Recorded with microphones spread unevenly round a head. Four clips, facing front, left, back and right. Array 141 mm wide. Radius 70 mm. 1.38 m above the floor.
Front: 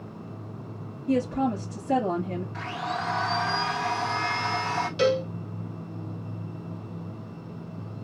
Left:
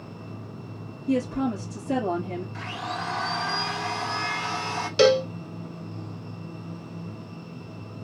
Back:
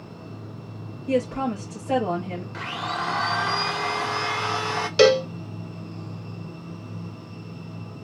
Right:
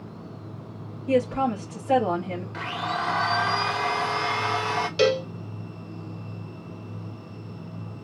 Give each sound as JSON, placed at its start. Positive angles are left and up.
{"t": 1.1, "sound": "a woman speaking", "azimuth_deg": -135, "distance_m": 5.0}
{"t": 2.5, "sound": "a blender", "azimuth_deg": -130, "distance_m": 2.5}
{"t": 5.0, "sound": "a cowbell", "azimuth_deg": 170, "distance_m": 0.8}